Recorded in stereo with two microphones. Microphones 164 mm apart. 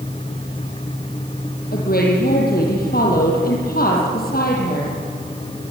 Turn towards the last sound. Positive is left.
turn(degrees=65)  # may be behind; listen again after turning